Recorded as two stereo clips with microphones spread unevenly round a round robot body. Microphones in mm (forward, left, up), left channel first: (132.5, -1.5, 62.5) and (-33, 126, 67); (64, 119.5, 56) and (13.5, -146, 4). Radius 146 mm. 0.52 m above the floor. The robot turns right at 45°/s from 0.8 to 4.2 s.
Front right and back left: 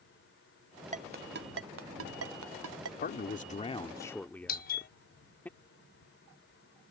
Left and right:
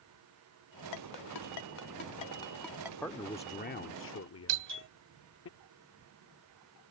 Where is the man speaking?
10° right; by 5.5 s 45° left.